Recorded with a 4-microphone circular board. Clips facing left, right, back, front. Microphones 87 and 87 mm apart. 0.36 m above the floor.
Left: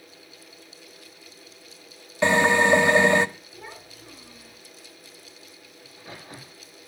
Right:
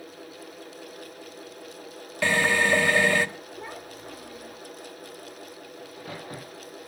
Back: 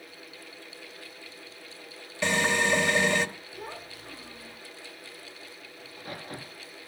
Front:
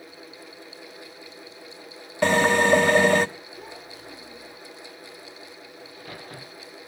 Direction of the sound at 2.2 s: 30° left.